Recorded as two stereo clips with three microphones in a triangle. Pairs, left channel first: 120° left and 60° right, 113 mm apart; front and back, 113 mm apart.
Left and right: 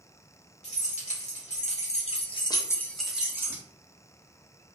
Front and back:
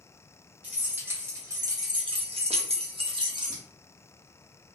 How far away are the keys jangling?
About 1.5 m.